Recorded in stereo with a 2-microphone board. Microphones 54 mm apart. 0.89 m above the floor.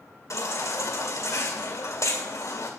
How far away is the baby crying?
About 1.9 m.